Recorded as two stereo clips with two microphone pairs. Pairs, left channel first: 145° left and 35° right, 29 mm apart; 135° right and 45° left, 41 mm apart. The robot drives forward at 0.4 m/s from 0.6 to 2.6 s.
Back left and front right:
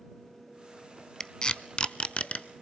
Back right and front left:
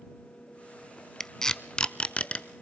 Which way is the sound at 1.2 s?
165° left.